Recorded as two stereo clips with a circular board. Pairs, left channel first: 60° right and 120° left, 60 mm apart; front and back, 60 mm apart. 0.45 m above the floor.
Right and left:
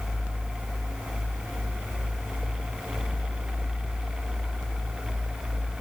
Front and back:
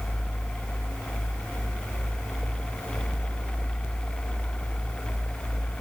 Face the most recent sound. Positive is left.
No sound to turn to.